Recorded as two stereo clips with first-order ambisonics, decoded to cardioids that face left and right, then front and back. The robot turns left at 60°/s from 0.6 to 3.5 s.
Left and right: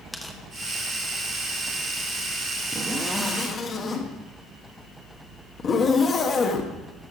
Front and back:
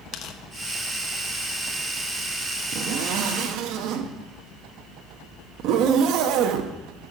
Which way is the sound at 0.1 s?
Straight ahead.